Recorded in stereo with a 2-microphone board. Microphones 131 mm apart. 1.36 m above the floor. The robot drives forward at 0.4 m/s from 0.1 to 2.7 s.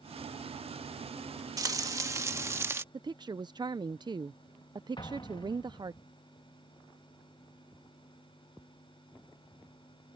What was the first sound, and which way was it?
Frying, 30° right (ahead or behind).